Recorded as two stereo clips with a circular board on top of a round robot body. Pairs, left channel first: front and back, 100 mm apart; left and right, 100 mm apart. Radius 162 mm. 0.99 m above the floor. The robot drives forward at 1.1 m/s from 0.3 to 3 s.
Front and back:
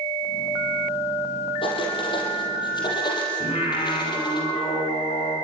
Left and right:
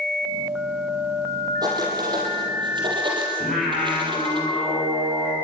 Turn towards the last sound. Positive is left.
turn(degrees=0)